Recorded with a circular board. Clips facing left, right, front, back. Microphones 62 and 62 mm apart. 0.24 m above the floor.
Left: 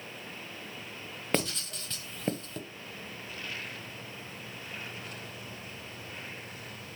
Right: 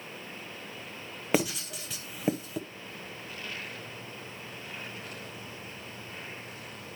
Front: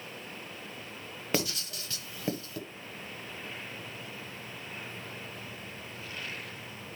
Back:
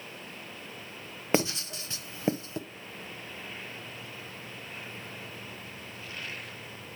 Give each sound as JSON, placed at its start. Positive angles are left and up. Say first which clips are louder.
{"t": 1.3, "sound": "writing", "louder": "right 3 dB, back 5 dB", "azimuth_deg": -160, "distance_m": 0.9}